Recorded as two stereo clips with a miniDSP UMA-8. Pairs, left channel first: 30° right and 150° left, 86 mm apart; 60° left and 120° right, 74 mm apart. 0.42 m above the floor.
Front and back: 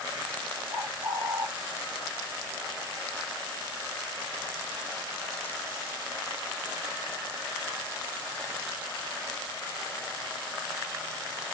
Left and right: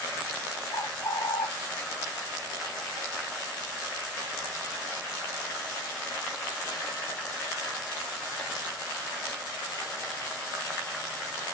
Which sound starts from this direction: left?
A bird, at 0.7 s.